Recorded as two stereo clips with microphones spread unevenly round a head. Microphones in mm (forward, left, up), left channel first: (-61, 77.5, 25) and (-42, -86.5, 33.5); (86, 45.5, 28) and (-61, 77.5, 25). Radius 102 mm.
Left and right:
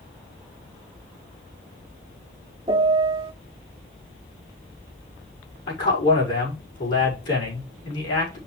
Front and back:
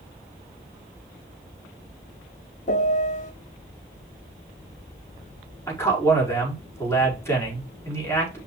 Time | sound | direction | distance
2.7 | a piano | 30° right | 0.5 m
5.7 | a man speaking | 60° left | 5 m